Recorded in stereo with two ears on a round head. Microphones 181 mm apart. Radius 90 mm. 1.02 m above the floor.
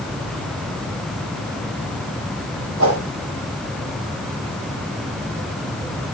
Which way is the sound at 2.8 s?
80° right.